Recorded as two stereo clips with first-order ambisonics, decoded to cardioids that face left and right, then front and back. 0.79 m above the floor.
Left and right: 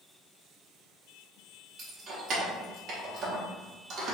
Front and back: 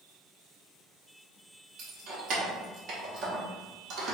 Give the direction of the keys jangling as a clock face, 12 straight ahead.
5 o'clock.